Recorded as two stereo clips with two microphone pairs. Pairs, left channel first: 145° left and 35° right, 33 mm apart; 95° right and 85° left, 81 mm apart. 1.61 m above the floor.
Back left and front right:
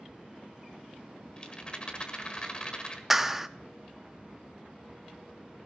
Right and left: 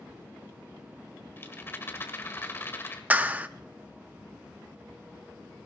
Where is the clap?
50° left, 0.6 m.